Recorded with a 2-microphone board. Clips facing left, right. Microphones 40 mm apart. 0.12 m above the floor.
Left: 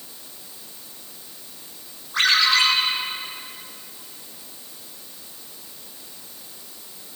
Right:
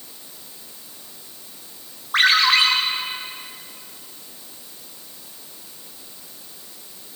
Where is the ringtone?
65° right (ahead or behind), 7.5 m.